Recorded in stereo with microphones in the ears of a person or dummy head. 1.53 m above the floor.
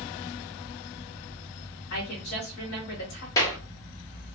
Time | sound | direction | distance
1.9 | a woman speaking | 70° left (ahead or behind) | 1.1 m
3.4 | a clap | 25° left (ahead or behind) | 1.0 m